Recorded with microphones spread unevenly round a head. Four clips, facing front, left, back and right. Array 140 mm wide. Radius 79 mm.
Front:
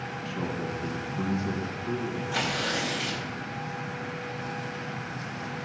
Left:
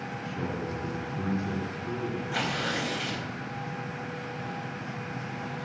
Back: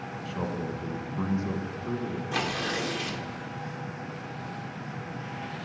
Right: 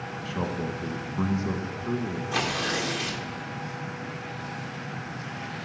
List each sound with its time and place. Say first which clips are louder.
0.2 s a man speaking: right 4 dB, even; 95° right, 1.4 m
2.3 s tearing paper: right 4 dB, even; 140° right, 1.9 m